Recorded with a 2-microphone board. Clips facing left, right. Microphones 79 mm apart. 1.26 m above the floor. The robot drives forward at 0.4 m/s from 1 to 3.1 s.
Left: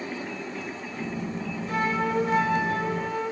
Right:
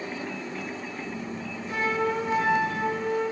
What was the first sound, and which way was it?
A flute, 50° left (ahead or behind).